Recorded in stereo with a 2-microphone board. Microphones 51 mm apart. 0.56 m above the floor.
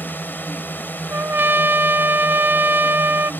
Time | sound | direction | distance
0.0 | a drone | 40° left (ahead or behind) | ?
1.1 | a trumpet | 45° right (ahead or behind) | ?